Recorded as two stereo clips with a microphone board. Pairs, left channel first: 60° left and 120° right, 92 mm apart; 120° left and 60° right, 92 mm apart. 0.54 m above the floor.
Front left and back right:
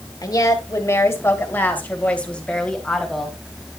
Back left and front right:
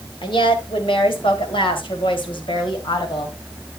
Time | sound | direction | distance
0.2 | a woman speaking | 105° left | 2.5 m